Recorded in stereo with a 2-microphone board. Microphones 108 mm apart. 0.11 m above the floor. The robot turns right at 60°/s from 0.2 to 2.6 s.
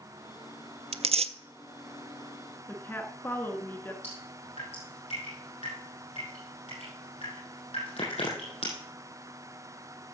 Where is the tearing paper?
70° right (ahead or behind), 0.5 m.